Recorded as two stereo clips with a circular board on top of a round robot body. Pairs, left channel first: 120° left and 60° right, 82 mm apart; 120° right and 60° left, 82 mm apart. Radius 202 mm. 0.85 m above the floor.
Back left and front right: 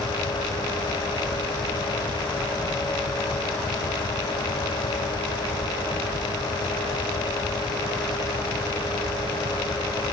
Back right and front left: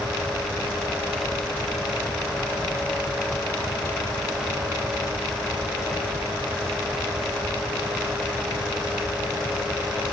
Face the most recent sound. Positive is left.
No sound to turn to.